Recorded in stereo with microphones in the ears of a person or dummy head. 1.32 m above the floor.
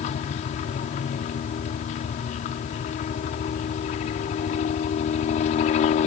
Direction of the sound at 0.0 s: 40° left (ahead or behind).